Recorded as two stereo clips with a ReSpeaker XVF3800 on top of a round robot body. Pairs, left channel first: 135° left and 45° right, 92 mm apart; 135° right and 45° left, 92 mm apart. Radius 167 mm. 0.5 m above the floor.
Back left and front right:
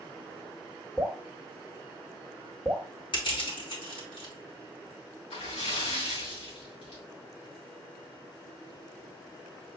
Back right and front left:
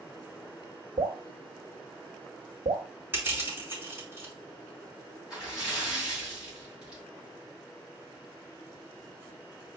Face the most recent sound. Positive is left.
turn(degrees=125)